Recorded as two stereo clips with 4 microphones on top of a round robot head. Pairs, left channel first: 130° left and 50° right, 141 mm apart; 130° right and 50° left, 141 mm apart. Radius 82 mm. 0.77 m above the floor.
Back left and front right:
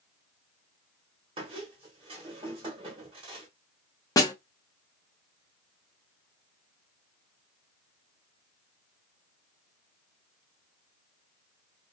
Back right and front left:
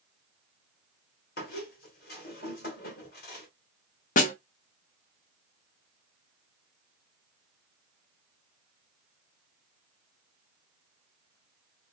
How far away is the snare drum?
About 0.7 m.